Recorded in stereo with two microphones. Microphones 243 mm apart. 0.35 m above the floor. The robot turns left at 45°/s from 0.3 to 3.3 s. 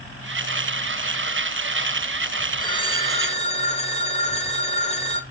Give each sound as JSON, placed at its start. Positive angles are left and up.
{"t": 2.6, "sound": "a phone ringing", "side_deg": 20, "distance_m": 0.9}